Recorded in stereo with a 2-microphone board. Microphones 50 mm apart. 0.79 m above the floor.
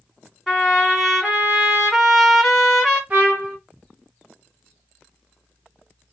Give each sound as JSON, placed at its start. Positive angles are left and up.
{"t": 0.5, "sound": "a trumpet", "side_deg": 5, "distance_m": 1.8}
{"t": 3.1, "sound": "a trumpet", "side_deg": -35, "distance_m": 1.2}